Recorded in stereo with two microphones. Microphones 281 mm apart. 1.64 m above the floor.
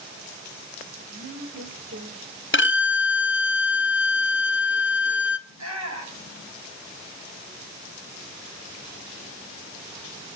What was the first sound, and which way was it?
A woman speaking, 65° right (ahead or behind).